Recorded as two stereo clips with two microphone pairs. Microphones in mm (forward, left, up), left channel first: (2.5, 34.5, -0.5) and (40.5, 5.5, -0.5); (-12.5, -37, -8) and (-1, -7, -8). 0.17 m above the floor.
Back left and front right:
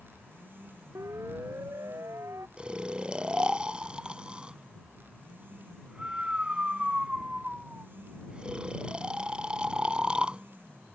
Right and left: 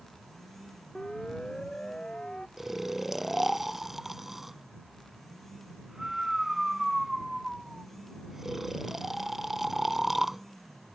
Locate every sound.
0.9 s a siren: 40° right; by 2.5 s 45° right
2.6 s snoring: straight ahead